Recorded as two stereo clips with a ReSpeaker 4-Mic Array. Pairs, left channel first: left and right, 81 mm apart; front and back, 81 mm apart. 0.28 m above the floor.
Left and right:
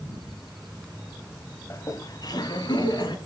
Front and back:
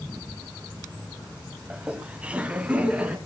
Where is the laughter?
110° left, 1.2 m; by 3.1 s 105° left, 3 m.